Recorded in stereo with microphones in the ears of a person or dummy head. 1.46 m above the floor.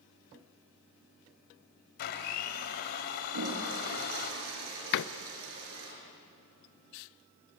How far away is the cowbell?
No cowbell in this recording.